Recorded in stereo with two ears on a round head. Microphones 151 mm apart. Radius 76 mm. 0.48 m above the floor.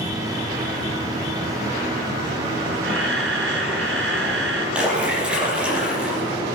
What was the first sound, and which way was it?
A camera shutter, 80° right.